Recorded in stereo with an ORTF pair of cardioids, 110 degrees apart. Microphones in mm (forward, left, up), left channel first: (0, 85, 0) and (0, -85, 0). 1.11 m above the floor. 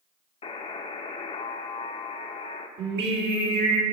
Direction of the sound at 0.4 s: 35° left.